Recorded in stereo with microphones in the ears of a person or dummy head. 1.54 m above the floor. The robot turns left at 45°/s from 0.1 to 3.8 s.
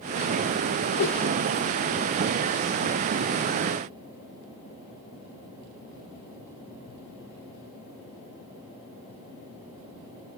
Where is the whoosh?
45° left (ahead or behind), 3.5 m; by 1.2 s 55° left (ahead or behind), 3.5 m.